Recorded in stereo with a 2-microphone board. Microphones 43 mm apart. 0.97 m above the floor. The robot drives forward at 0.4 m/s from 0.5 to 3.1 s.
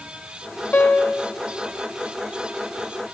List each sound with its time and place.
0.7 s a piano: 40° left (ahead or behind), 0.8 m; by 1.3 s 50° left (ahead or behind), 0.7 m